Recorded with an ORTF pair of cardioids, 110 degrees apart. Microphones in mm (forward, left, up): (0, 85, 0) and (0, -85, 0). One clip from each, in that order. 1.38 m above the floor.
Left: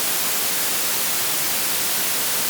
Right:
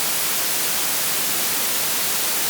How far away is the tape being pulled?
I don't hear tape being pulled.